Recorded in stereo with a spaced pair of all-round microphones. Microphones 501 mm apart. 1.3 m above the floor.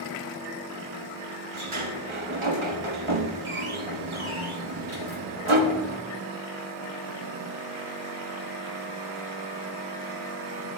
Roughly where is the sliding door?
Right.